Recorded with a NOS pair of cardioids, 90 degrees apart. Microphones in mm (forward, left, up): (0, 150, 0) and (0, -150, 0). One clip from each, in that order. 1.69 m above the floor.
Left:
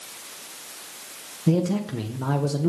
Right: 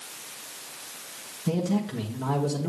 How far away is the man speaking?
About 1.1 m.